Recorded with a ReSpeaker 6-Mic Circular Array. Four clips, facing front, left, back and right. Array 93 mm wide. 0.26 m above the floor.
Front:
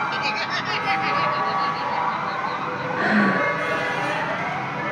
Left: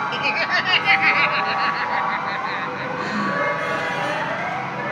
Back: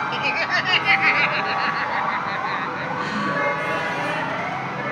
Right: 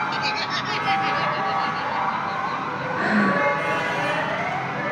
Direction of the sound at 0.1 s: 115° left.